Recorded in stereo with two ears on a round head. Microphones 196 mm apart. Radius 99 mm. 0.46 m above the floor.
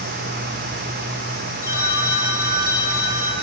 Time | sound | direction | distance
1.6 | a phone ringing | 15° right (ahead or behind) | 7 m